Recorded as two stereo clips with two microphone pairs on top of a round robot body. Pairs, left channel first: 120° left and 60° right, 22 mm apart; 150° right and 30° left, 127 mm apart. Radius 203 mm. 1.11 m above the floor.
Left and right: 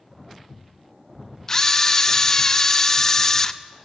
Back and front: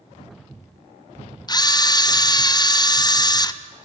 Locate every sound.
1.5 s a camera shutter: 165° left, 0.7 m